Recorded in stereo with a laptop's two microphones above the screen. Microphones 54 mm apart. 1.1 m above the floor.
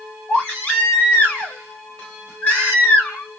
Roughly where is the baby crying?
Left.